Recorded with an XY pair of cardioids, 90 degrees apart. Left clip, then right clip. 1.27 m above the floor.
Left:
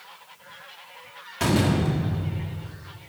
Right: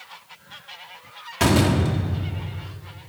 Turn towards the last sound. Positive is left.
turn(degrees=-50)